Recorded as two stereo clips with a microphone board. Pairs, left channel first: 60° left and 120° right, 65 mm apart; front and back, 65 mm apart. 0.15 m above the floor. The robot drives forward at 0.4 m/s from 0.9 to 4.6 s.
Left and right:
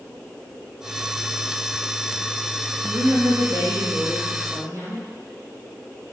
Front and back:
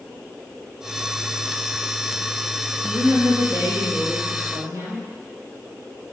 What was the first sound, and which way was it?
A woman speaking, 155° right.